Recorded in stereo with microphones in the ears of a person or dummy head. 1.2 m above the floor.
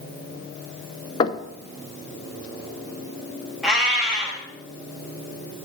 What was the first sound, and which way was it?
Knocking, 30° left (ahead or behind).